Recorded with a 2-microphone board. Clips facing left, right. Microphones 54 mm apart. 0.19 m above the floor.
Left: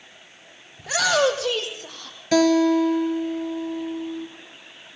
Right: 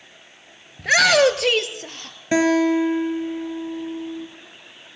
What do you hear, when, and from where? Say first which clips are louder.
0.8 s a shout: right 5 dB; 65° right (ahead or behind), 2.5 m; by 2.2 s 70° right (ahead or behind), 3.5 m
2.3 s a guitar: even; 25° right (ahead or behind), 3.5 m